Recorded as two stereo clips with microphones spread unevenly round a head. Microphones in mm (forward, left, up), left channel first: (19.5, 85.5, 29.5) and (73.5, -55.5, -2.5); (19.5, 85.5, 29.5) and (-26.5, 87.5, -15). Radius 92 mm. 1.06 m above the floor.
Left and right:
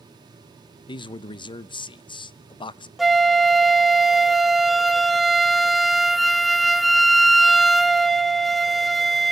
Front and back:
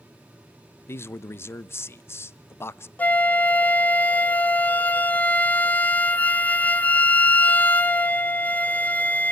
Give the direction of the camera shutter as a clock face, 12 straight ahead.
No camera shutter in this recording.